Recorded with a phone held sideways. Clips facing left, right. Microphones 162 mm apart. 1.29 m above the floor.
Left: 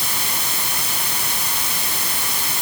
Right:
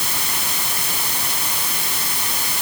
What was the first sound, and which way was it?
Only background noise.